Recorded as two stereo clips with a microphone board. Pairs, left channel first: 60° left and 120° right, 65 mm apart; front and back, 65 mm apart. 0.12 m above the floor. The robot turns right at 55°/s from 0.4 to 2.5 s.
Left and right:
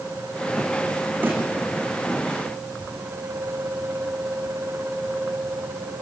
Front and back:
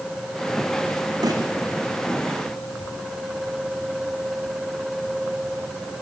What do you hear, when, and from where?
1.2 s a snare drum: straight behind, 5 m; by 1.4 s 170° right, 5 m